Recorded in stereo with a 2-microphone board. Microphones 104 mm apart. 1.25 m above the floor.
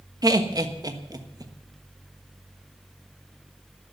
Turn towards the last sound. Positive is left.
turn(degrees=-40)  # may be behind; listen again after turning